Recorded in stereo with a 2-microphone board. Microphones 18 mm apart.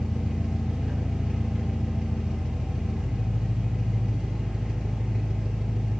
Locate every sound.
0.0 s an engine running: 70° right (ahead or behind), 2 m